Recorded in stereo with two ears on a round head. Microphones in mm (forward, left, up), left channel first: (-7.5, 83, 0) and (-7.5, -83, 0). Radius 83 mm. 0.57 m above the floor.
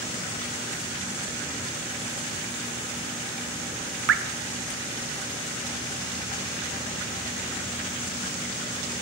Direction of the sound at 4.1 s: 65° right (ahead or behind).